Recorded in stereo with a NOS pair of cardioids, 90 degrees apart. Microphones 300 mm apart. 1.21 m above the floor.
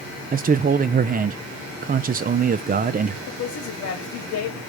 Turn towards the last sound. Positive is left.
turn(degrees=65)